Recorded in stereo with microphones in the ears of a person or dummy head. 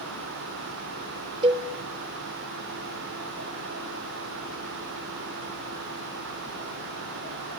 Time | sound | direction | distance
1.4 | a cowbell | 30° right (ahead or behind) | 1.0 m